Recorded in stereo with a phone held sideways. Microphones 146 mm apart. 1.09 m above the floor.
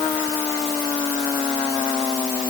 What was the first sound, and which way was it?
Only background noise.